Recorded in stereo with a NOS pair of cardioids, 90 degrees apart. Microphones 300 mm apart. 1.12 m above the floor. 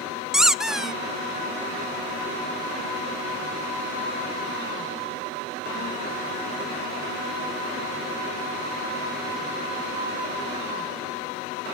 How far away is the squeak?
About 0.5 m.